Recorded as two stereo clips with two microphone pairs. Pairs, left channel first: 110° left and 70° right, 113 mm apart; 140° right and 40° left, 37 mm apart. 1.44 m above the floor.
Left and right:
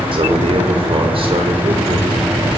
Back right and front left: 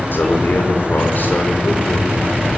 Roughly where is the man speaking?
Right.